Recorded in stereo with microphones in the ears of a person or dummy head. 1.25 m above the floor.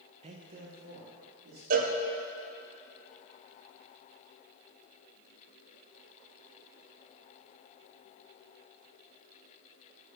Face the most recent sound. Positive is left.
turn(degrees=-45)  # may be behind; listen again after turning